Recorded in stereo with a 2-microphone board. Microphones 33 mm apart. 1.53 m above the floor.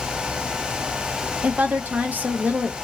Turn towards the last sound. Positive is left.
turn(degrees=-70)  # may be behind; listen again after turning